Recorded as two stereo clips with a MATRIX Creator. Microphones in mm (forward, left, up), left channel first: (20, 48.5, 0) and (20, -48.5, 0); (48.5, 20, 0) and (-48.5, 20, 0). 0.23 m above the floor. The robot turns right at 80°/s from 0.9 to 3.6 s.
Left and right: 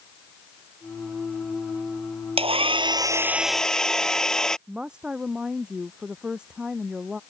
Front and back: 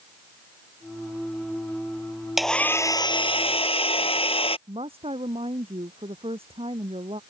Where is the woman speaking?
170° right.